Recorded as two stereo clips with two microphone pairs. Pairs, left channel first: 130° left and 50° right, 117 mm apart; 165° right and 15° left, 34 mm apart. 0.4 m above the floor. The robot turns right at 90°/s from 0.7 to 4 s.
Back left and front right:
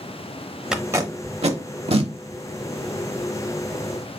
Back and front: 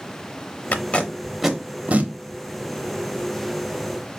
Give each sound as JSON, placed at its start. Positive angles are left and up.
{"t": 0.7, "sound": "tape being pulled", "azimuth_deg": -135, "distance_m": 0.7}